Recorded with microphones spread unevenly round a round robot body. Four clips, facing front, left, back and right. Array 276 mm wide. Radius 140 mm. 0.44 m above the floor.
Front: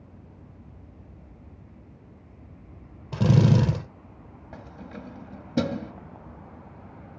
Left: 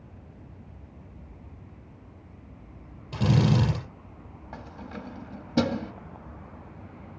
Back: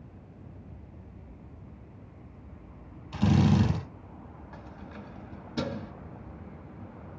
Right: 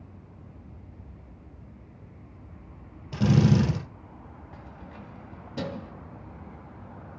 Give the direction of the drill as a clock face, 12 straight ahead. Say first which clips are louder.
Right 2 dB, front 3 dB; 12 o'clock.